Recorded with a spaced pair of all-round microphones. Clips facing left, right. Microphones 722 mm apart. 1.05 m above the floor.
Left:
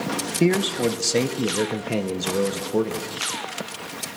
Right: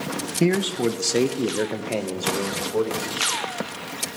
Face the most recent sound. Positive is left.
turn(degrees=60)  # may be behind; listen again after turning